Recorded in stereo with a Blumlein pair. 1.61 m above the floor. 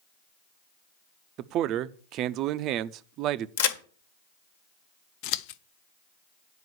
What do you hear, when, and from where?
1.4 s a man speaking: 35° right, 0.6 m
3.6 s a crack: 55° left, 1.4 m
5.2 s scissors: 45° left, 0.6 m